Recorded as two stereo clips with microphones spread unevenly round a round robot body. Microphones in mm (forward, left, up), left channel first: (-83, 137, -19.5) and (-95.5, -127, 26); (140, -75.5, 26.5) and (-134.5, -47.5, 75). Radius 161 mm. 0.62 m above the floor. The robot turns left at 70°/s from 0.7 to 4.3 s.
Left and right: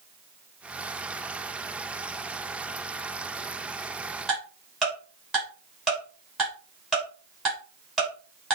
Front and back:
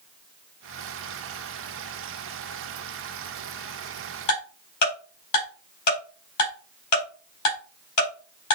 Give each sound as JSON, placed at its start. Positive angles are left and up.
{"t": 4.3, "sound": "ticking", "azimuth_deg": 0, "distance_m": 5.0}